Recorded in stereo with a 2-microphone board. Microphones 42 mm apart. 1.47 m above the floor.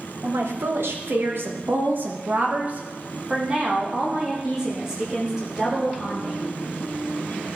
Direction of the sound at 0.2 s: 80° right.